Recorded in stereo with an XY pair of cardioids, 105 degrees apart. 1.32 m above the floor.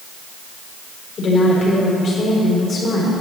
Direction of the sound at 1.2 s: 45° left.